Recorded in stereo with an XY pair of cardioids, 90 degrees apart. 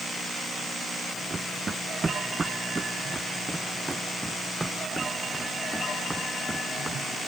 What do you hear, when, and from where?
1.3 s running footsteps: 30° right; by 7.0 s 10° right